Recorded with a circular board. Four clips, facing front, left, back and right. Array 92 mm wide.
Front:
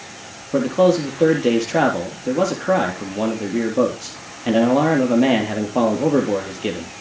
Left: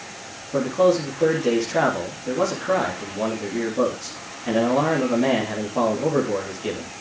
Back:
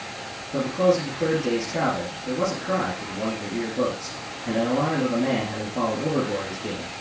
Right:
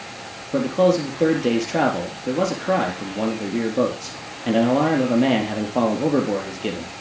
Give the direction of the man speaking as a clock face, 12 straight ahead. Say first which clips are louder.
Right 1 dB, front 5 dB; 1 o'clock.